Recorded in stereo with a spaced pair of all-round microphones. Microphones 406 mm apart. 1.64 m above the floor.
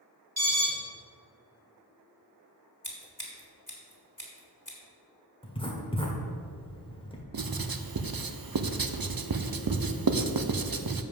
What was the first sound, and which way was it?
An alarm, 60° right (ahead or behind).